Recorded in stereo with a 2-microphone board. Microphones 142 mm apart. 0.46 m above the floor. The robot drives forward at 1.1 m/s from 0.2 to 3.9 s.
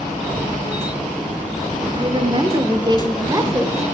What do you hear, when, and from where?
1.9 s a woman speaking: 35° right (ahead or behind), 1.3 m; by 3.8 s 20° right (ahead or behind), 2 m